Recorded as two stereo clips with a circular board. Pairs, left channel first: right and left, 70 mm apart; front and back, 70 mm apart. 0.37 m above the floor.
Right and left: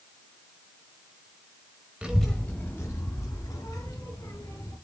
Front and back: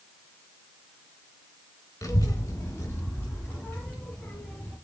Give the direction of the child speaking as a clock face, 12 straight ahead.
11 o'clock.